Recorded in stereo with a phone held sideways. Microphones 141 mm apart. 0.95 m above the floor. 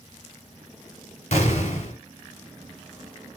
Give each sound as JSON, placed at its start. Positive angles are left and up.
{"t": 1.3, "sound": "an explosion", "side_deg": 55, "distance_m": 2.5}